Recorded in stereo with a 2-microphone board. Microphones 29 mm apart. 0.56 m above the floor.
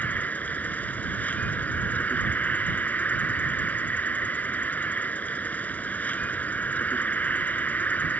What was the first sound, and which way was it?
An insect, 80° left.